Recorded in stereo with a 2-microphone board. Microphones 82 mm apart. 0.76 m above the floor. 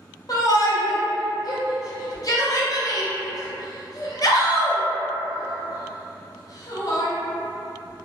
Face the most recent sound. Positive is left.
turn(degrees=45)  # may be behind; listen again after turning